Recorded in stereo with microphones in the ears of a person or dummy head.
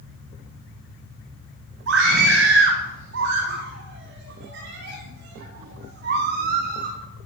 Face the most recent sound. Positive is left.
turn(degrees=-50)  # may be behind; listen again after turning